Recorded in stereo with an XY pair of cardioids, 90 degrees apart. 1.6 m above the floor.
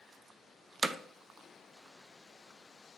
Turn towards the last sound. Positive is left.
turn(degrees=-20)